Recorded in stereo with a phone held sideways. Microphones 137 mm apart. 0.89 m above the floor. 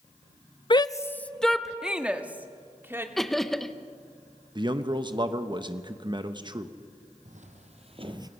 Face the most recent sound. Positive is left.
turn(degrees=-25)  # may be behind; listen again after turning